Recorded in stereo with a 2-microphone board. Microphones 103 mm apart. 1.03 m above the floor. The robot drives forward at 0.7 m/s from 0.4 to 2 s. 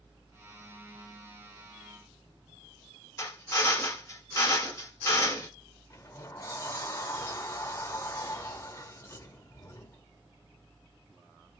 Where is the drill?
35° left (ahead or behind), 0.9 m.